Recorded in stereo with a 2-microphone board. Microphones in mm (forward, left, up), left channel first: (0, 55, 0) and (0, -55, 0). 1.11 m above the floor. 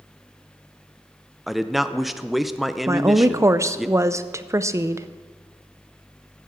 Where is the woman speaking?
25° right (ahead or behind), 0.5 m.